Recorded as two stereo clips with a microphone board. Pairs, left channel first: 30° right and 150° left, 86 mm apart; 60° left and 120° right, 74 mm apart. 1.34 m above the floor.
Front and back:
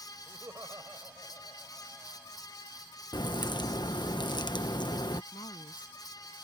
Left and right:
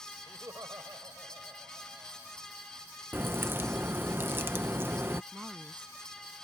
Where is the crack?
60° right.